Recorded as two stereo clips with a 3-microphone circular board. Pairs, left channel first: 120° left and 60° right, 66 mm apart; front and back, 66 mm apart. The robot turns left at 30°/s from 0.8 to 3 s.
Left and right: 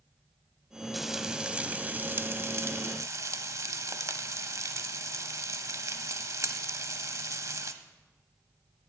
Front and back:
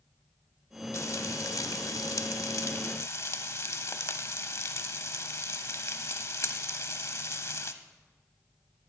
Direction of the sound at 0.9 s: 30° left.